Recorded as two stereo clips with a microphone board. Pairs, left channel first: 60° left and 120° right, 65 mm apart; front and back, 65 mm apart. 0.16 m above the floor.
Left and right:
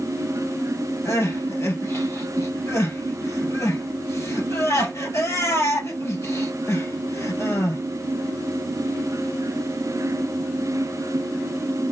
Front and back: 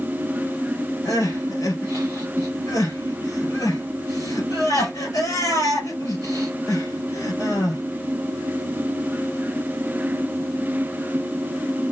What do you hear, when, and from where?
1.1 s crying: 20° left, 2.5 m